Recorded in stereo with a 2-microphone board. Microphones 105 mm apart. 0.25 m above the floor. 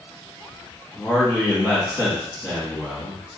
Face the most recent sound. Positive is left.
turn(degrees=40)  # may be behind; listen again after turning